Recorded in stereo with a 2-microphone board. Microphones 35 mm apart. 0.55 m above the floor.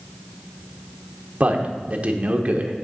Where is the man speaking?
40° right (ahead or behind), 1.0 m.